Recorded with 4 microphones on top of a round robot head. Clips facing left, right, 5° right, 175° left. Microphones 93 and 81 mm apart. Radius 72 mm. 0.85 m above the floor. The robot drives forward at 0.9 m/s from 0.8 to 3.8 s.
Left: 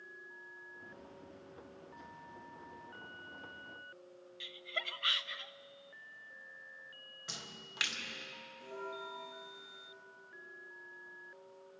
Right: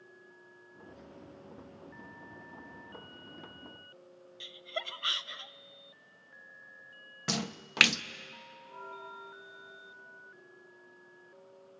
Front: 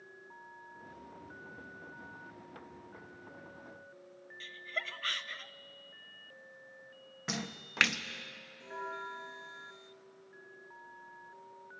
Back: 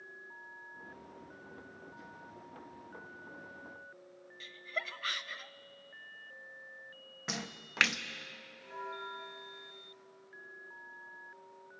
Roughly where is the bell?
Ahead left.